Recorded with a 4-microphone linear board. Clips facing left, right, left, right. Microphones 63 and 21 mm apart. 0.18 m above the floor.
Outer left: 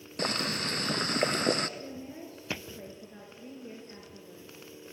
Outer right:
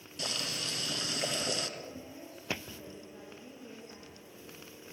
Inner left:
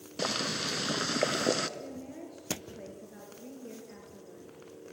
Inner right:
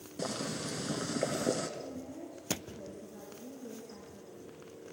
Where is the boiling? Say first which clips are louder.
Outer left 7 dB, inner left 5 dB; 55° left (ahead or behind), 0.8 m.